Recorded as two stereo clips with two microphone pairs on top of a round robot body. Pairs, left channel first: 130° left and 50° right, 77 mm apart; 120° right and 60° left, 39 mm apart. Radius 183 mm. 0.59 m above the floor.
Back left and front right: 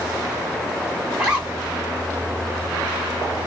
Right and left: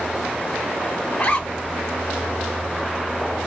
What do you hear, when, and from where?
1.1 s a zipper: 120° right, 1.8 m